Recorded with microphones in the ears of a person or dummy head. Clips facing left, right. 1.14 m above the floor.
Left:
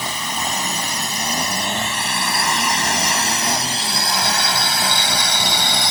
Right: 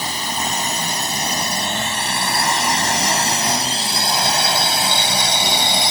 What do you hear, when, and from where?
0.0 s a drone: 30° right (ahead or behind); by 5.9 s 15° right (ahead or behind)